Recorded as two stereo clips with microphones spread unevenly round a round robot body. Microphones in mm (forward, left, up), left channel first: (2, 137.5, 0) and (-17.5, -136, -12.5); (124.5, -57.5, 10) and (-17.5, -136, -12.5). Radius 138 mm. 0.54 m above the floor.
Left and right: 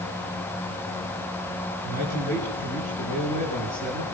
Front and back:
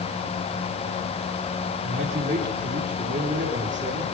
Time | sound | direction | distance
1.8 | a man speaking | 145° left | 8.5 m